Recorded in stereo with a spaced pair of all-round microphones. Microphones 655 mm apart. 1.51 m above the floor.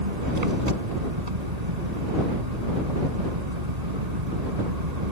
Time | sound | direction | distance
0.0 | an engine running | 75° right (ahead or behind) | ?